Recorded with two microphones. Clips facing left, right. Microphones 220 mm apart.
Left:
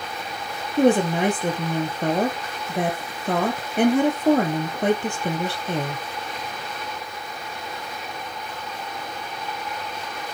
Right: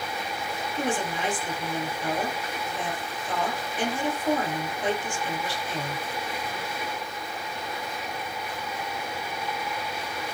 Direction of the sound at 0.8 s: 65° left (ahead or behind).